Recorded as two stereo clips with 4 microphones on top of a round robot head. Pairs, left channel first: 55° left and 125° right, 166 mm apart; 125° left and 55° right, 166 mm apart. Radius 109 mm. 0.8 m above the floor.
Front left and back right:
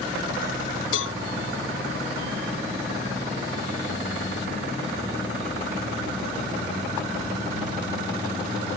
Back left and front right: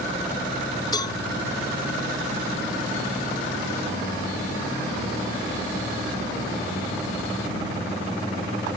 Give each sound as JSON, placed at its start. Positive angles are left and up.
{"t": 0.9, "sound": "a cowbell", "azimuth_deg": 55}